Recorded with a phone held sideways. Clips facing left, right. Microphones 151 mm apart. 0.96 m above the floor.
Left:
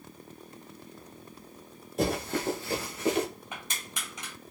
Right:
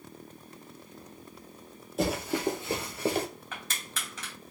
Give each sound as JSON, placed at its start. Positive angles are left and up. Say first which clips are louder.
{"t": 2.0, "sound": "running footsteps", "louder": "even", "side_deg": 0, "distance_m": 1.4}
{"t": 3.5, "sound": "crushing", "louder": "even", "side_deg": 15, "distance_m": 2.5}